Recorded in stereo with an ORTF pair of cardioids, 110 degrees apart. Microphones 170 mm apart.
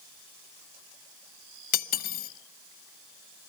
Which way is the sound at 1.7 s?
60° left.